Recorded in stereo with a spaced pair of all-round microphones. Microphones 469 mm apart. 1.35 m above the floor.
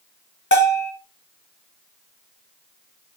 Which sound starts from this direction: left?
A bell, at 0.5 s.